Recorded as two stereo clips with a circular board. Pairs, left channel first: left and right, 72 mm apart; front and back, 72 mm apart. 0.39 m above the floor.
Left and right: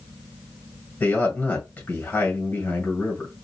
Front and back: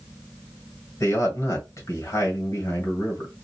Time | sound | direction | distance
1.0 | a man speaking | 25° left | 1.9 m